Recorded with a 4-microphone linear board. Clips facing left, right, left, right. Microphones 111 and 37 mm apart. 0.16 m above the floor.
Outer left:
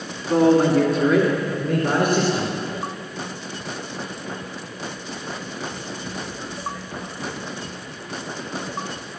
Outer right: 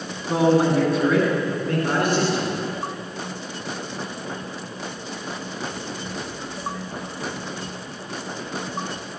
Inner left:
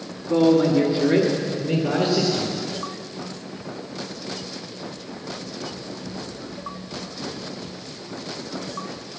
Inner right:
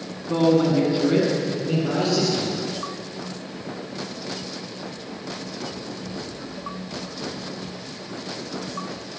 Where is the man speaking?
15° right (ahead or behind), 1.2 m; by 2.5 s 15° left (ahead or behind), 2.0 m.